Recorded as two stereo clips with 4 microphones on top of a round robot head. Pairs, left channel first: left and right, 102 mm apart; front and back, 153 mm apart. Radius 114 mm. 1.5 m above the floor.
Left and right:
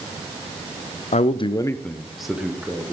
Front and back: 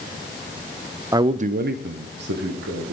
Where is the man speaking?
105° left, 0.6 m; by 2.9 s 165° right, 1.7 m.